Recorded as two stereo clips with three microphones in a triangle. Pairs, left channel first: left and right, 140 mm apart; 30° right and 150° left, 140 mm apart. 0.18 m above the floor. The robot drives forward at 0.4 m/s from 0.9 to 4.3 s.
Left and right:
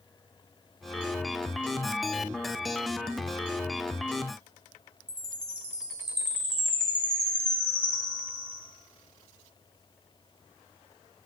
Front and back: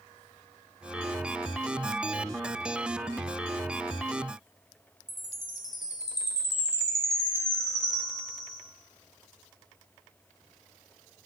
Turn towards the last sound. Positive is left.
turn(degrees=-75)